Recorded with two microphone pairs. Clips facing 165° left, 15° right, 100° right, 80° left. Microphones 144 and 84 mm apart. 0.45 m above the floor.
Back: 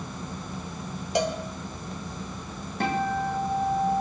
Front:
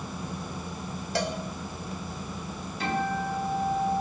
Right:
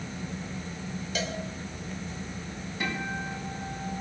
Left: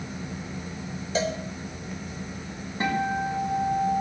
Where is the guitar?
135° left, 3.5 m.